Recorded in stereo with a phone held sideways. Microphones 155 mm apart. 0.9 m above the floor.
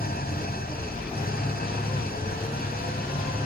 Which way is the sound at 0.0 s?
70° left (ahead or behind).